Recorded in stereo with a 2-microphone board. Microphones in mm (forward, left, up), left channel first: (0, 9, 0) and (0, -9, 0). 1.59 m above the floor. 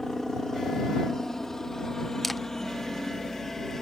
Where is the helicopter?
25° left (ahead or behind); by 3.8 s 20° left (ahead or behind).